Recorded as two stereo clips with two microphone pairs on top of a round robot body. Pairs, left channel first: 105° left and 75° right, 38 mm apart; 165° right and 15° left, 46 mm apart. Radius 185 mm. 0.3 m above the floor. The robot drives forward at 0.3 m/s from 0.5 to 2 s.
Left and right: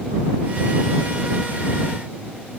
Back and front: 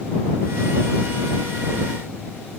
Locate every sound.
Only background noise.